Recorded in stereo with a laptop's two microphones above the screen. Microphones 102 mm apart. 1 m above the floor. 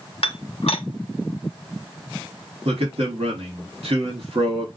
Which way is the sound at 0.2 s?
75° left (ahead or behind).